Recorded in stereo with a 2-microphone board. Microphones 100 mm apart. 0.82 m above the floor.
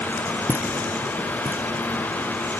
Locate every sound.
0.5 s footsteps: 20° right (ahead or behind), 1.5 m; by 2.5 s 15° right (ahead or behind), 3 m